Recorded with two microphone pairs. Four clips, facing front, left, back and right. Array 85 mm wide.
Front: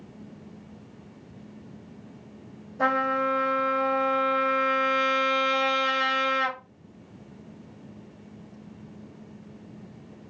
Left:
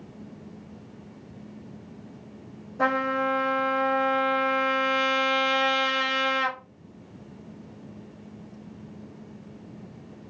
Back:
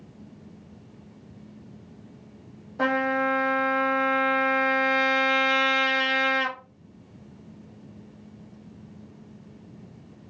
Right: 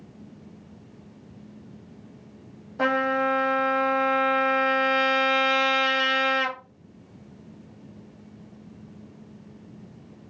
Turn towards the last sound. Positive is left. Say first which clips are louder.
# right 1 dB, even
turn(degrees=-135)